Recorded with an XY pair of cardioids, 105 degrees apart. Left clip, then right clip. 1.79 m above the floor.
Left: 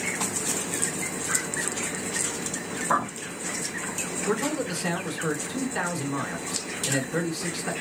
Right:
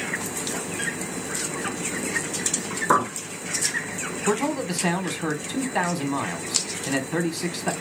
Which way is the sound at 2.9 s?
65° right.